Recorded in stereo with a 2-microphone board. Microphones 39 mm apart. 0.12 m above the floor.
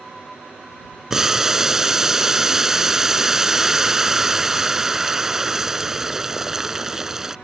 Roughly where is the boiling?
Centre.